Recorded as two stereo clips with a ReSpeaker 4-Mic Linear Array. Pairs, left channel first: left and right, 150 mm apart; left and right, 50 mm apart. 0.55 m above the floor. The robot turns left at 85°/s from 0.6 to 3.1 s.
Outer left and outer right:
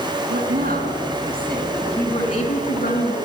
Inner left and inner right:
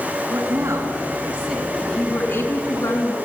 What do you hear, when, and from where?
0.3 s a woman speaking: 100° right, 5 m; by 3.1 s 45° left, 5 m